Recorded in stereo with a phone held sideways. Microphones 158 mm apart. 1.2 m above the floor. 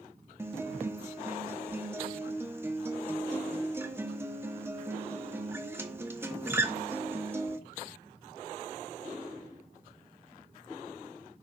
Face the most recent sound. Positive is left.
turn(degrees=-15)  # may be behind; listen again after turning